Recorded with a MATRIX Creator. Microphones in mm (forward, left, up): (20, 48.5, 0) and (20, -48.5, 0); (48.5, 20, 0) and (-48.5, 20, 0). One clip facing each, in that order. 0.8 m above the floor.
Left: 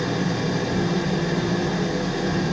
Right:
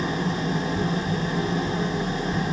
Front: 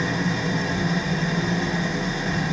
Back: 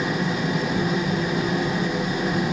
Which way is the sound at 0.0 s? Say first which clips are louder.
Left 2 dB, back 1 dB; 105° left.